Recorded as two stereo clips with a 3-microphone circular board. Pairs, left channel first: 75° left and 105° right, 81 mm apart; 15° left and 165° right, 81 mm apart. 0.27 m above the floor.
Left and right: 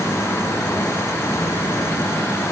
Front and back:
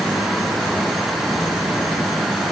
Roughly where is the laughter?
No laughter in this recording.